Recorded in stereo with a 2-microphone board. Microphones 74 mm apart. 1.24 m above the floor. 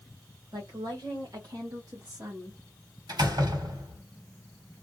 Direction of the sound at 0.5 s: 70° right (ahead or behind).